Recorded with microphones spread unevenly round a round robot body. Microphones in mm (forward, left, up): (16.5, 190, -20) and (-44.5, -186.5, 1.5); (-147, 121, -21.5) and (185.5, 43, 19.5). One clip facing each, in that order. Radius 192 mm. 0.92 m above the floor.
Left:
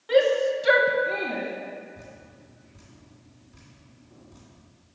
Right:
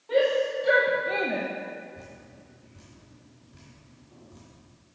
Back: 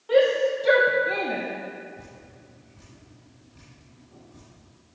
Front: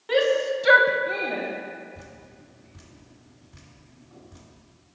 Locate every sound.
0.1 s a shout: 40° left, 1.5 m; by 1.5 s 150° right, 0.8 m
1.9 s dripping: 10° right, 2.5 m